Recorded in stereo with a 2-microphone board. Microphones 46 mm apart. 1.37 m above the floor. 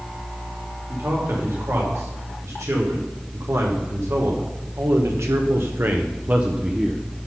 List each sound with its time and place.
0.9 s a man speaking: 75° right (ahead or behind), 3 m; by 7.0 s 10° right (ahead or behind), 0.7 m